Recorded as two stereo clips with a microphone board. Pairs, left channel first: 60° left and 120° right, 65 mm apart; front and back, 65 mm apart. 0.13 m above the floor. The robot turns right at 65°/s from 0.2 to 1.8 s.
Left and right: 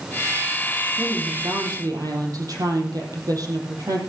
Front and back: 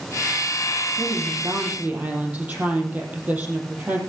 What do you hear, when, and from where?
1.0 s a woman speaking: 170° right, 5 m; by 4.0 s 120° right, 5 m